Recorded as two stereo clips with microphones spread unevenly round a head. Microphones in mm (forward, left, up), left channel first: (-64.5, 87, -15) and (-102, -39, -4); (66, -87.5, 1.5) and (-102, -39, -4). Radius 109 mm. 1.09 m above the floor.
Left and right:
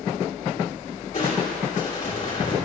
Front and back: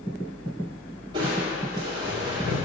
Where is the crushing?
95° left, 2.5 m.